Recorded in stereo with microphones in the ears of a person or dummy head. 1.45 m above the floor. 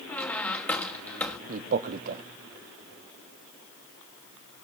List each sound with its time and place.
0.1 s a squeak: 10° left (ahead or behind), 2.0 m
1.5 s a man speaking: 40° right (ahead or behind), 0.6 m